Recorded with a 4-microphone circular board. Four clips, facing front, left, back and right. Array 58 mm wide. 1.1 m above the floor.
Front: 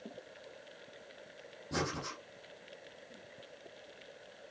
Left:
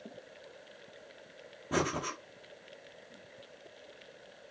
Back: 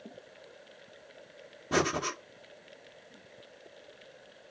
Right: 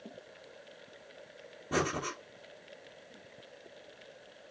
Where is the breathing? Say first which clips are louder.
Even, back 8 dB; straight behind, 1.0 m.